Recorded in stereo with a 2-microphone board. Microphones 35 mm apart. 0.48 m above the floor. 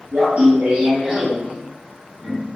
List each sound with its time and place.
0.1 s laughter: 55° right (ahead or behind), 1.2 m; by 2.5 s 20° left (ahead or behind), 1.2 m